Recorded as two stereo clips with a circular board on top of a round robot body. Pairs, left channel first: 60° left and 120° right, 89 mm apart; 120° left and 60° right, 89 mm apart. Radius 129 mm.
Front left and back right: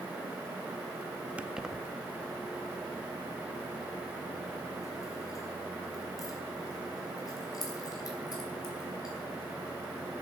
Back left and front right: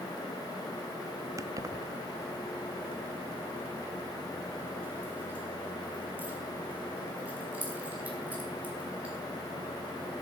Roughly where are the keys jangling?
Ahead right.